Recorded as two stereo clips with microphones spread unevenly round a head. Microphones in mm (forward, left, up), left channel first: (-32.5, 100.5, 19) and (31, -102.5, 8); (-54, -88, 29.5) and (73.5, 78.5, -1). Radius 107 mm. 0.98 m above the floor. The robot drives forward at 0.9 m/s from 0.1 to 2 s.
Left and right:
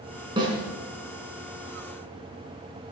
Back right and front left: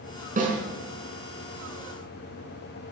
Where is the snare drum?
Straight ahead, 4.5 m.